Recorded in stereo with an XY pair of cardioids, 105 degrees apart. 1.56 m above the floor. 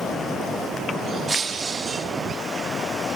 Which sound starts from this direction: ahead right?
Breaking glass, at 1.3 s.